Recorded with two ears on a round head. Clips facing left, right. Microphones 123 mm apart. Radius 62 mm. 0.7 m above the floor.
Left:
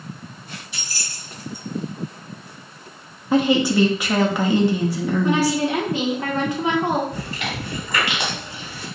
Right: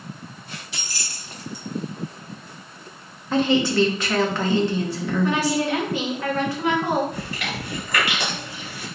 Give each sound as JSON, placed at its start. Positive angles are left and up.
{"t": 0.7, "sound": "keys jangling", "side_deg": -60, "distance_m": 0.7}
{"t": 3.3, "sound": "a woman speaking", "side_deg": 10, "distance_m": 0.6}
{"t": 5.2, "sound": "a woman speaking", "side_deg": 20, "distance_m": 0.8}
{"t": 7.1, "sound": "chewing", "side_deg": 25, "distance_m": 1.4}